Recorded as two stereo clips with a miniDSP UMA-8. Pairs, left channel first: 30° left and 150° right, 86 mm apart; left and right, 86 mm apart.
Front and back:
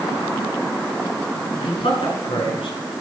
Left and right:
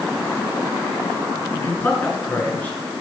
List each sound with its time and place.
1.6 s a man speaking: 25° left, 3.5 m; by 2.8 s 20° left, 4.5 m